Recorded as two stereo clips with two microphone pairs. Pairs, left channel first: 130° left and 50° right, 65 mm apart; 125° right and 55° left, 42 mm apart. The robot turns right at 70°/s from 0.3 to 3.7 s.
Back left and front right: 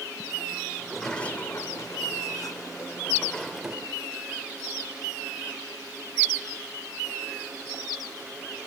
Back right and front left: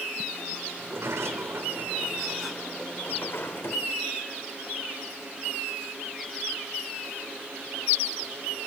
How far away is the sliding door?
About 1.8 m.